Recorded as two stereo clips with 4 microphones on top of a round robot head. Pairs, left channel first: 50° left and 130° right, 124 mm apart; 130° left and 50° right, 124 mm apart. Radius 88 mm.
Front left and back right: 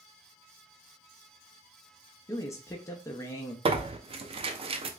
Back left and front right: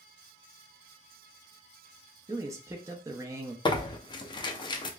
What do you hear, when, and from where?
2.3 s a man speaking: straight ahead, 0.6 m
3.6 s tearing paper: 175° right, 0.6 m